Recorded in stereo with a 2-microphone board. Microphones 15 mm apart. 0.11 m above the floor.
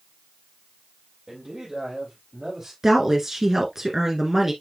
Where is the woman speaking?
30° right (ahead or behind), 1.4 m.